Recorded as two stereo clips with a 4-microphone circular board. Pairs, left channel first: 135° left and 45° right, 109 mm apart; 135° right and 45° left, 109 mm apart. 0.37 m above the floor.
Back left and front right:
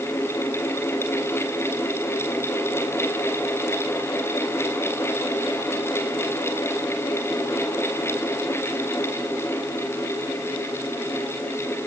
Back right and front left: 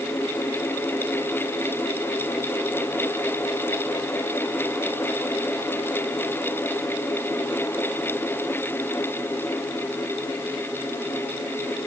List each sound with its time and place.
Only background noise.